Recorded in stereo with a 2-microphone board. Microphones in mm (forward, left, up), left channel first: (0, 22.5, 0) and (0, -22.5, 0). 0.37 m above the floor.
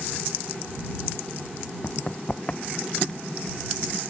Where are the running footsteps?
55° left (ahead or behind); by 3.2 s 20° left (ahead or behind).